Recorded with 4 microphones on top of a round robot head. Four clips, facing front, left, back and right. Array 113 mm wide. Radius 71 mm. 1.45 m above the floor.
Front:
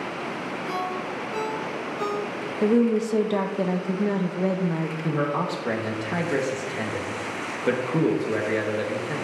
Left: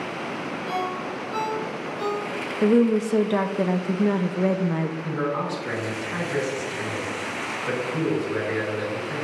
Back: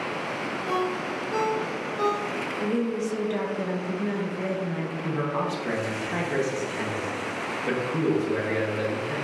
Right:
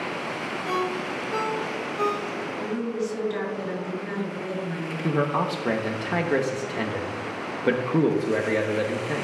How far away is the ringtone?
About 2 m.